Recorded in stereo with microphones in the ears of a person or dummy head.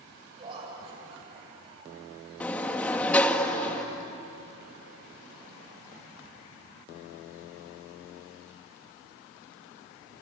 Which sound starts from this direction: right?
Laughter, at 0.4 s.